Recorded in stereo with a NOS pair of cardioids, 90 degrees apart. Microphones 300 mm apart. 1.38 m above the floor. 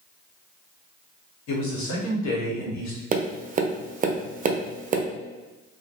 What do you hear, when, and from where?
1.5 s a man speaking: 70° left, 1.2 m
3.1 s tapping: 30° right, 0.5 m